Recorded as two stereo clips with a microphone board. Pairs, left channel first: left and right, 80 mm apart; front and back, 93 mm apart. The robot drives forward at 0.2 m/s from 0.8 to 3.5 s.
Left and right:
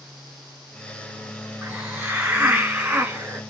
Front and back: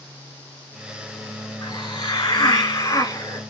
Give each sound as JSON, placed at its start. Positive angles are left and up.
{"t": 1.6, "sound": "a hiss", "azimuth_deg": -30, "distance_m": 1.3}